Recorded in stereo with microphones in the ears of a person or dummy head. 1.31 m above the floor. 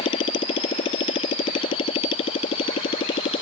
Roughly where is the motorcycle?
Left.